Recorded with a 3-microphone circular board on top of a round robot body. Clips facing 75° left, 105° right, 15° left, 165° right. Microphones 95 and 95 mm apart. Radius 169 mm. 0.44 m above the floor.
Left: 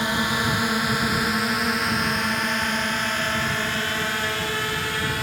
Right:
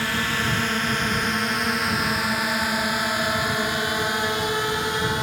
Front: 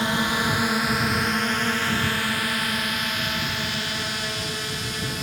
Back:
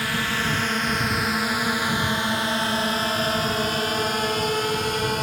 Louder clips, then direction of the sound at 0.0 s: Left 2 dB, front 2 dB; 35° left.